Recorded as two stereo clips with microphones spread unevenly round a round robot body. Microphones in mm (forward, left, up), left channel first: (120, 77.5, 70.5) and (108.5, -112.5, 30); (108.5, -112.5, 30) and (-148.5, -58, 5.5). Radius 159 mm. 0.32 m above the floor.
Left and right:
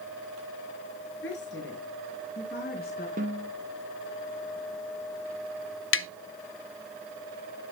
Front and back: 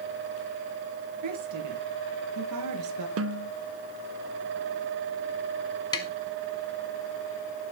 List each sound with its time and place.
1.2 s a woman speaking: 135° left, 5.5 m; by 3.1 s 145° left, 4.5 m
3.2 s a snare drum: 155° right, 1.0 m
5.9 s tapping: 65° left, 0.5 m